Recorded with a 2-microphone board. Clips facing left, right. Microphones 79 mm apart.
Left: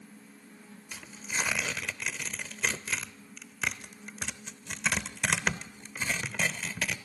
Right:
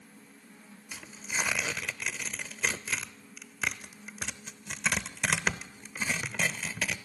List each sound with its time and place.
0.9 s tearing paper: 5° right (ahead or behind), 0.5 m